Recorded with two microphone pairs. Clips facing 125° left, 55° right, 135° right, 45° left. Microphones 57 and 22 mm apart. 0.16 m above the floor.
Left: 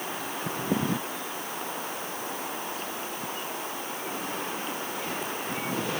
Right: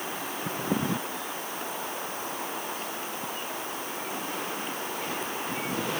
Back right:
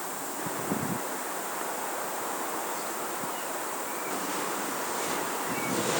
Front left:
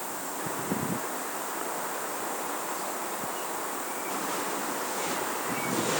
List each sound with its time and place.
Only background noise.